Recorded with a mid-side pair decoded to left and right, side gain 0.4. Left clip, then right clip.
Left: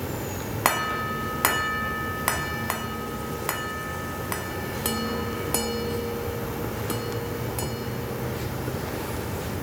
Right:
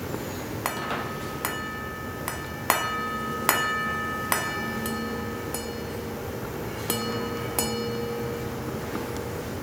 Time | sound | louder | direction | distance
0.0 | an insect | left 1 dB | 35° left | ?